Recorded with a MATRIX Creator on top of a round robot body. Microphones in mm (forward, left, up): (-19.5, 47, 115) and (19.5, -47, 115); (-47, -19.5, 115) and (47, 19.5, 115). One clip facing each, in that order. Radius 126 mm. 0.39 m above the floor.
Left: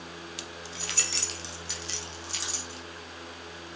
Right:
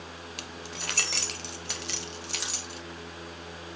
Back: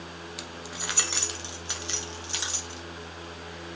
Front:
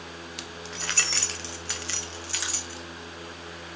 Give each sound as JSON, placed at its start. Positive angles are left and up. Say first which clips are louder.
{"t": 0.4, "sound": "keys jangling", "louder": "right 1 dB, even", "azimuth_deg": -70, "distance_m": 1.1}